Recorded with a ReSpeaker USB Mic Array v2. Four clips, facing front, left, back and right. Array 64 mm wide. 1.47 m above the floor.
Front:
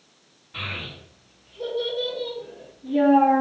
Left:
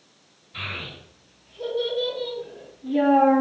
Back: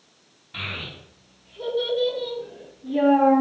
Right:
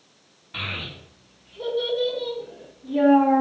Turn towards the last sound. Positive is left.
turn(degrees=80)